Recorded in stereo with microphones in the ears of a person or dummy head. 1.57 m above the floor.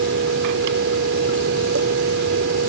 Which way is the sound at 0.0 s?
70° right (ahead or behind).